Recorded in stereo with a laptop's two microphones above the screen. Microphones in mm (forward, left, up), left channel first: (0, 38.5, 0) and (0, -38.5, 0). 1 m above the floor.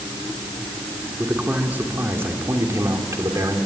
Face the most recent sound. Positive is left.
turn(degrees=-50)  # may be behind; listen again after turning